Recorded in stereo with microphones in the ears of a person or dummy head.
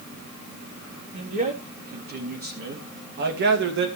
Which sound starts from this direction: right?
A man speaking, at 1.1 s.